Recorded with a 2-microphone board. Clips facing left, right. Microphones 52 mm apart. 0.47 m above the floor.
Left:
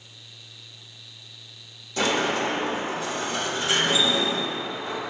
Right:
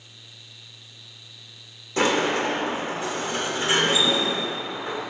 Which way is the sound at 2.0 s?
30° right (ahead or behind).